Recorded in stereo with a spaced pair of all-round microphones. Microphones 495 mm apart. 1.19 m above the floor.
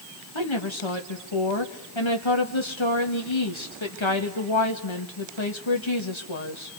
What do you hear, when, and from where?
0.3 s a woman speaking: 70° left (ahead or behind), 1.8 m